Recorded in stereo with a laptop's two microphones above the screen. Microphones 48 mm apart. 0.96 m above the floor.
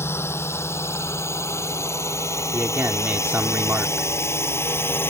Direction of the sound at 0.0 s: 65° left (ahead or behind).